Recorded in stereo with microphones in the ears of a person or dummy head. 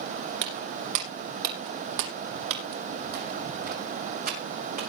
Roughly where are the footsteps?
Right.